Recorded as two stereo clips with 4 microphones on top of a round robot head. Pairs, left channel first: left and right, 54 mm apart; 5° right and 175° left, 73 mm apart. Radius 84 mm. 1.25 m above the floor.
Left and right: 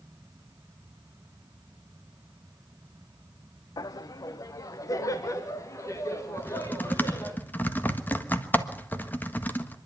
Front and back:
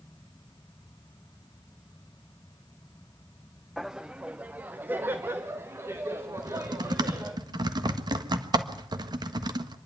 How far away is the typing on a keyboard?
About 1.5 m.